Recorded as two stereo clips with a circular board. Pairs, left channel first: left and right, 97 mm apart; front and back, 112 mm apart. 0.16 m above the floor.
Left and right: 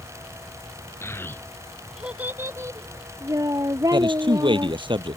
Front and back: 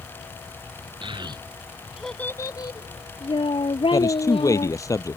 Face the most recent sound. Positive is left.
turn(degrees=-60)